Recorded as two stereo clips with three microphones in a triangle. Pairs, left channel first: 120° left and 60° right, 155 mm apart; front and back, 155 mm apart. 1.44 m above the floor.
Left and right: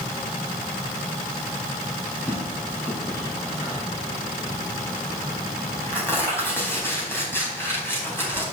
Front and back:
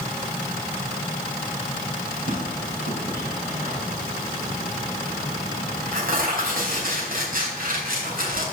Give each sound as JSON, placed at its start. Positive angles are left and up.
{"t": 2.3, "sound": "tearing paper", "azimuth_deg": -165, "distance_m": 4.0}